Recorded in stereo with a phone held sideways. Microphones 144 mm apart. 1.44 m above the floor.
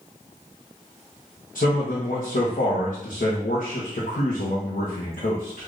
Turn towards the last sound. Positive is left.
turn(degrees=75)  # may be behind; listen again after turning